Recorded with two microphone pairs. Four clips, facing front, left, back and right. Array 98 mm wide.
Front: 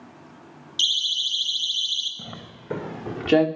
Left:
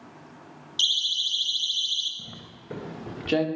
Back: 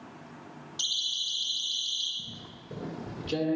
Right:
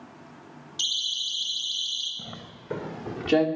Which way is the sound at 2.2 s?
20° right.